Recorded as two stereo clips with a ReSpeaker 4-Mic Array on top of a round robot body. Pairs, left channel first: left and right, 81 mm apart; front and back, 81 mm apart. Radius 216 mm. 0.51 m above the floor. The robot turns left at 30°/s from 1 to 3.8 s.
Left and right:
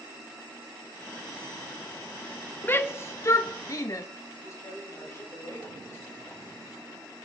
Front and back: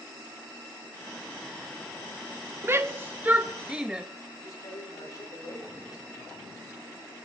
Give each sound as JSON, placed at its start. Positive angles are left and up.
{"t": 2.6, "sound": "a shout", "azimuth_deg": 140, "distance_m": 0.8}
{"t": 4.4, "sound": "a man speaking", "azimuth_deg": 40, "distance_m": 4.5}